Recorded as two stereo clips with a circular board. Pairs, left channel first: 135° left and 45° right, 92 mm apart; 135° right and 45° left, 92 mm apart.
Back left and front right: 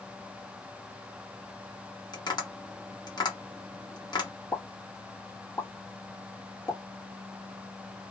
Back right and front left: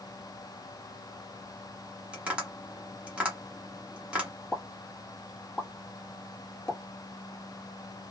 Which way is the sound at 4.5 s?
150° left.